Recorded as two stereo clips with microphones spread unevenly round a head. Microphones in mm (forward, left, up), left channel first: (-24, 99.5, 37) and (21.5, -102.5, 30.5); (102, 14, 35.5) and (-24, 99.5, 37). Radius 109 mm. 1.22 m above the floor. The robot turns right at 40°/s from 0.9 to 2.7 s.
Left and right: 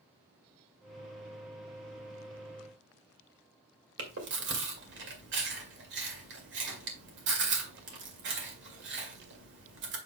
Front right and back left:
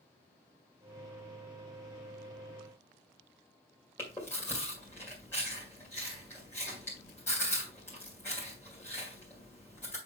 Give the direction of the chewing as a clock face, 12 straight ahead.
4 o'clock.